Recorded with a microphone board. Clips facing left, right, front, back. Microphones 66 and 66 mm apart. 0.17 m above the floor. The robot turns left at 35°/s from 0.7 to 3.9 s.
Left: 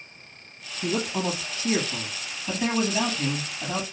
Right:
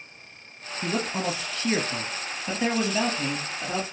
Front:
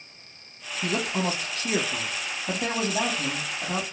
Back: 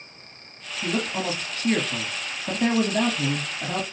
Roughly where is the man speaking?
Right.